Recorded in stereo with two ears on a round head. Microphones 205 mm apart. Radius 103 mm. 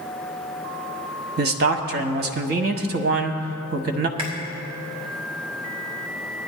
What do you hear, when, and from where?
1.4 s a man speaking: 45° right (ahead or behind), 1.1 m
4.2 s chewing: 25° right (ahead or behind), 3.5 m